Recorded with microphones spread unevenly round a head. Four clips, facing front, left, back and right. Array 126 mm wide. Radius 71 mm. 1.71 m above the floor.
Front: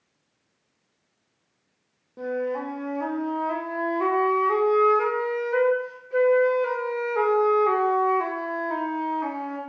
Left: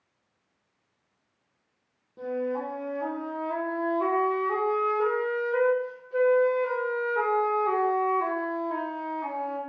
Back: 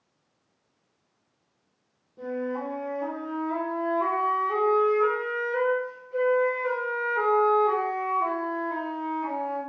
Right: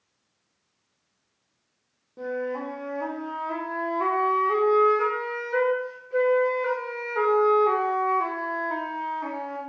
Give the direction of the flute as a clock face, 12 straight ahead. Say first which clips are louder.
Even, front 3 dB; 1 o'clock.